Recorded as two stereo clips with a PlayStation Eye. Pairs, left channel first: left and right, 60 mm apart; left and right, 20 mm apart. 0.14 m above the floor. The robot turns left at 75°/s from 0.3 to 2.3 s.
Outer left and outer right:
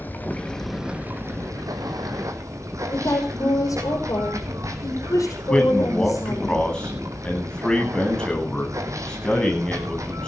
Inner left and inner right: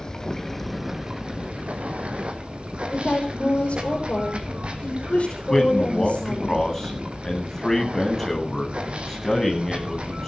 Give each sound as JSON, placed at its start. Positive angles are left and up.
{"t": 0.0, "sound": "running water", "azimuth_deg": 30, "distance_m": 2.0}
{"t": 2.9, "sound": "a woman speaking", "side_deg": 65, "distance_m": 5.5}
{"t": 5.5, "sound": "a man speaking", "side_deg": 15, "distance_m": 9.5}